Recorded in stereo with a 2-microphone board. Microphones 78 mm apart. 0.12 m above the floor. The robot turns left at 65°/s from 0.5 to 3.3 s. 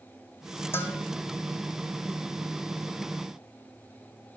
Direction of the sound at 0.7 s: 30° left (ahead or behind).